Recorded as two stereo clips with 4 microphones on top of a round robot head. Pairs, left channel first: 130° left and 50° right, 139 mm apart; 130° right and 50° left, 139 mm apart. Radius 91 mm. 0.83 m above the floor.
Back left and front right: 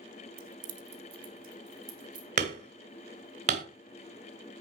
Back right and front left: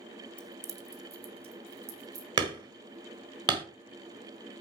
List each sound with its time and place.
0.4 s keys jangling: 45° right, 0.6 m; by 2.3 s 15° left, 3 m
2.4 s hammering: 10° right, 1.2 m